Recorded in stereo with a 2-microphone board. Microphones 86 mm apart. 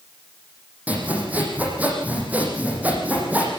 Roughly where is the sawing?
Centre.